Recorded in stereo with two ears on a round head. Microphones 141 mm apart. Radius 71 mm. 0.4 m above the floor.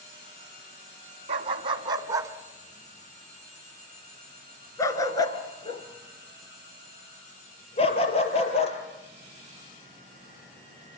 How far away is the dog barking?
About 1.6 m.